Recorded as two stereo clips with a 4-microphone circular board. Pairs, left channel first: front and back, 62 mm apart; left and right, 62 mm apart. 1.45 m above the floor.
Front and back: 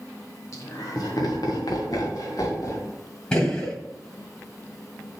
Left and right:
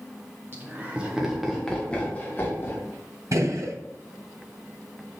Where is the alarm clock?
No alarm clock in this recording.